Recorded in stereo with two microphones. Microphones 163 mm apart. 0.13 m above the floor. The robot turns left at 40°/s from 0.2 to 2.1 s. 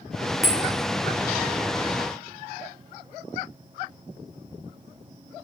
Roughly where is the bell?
Centre.